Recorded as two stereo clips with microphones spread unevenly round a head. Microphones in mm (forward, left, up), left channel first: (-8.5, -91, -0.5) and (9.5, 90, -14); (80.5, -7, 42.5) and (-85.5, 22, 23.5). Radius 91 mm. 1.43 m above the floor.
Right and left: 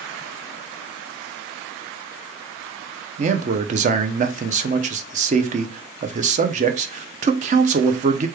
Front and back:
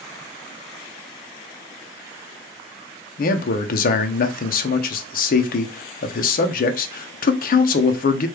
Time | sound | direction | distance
3.2 | a man speaking | 30° left | 0.5 m